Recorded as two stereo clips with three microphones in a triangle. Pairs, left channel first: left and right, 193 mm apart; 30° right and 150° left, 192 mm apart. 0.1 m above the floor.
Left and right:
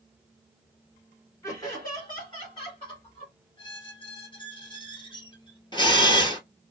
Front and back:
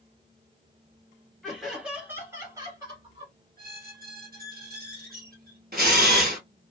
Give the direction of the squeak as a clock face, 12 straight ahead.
7 o'clock.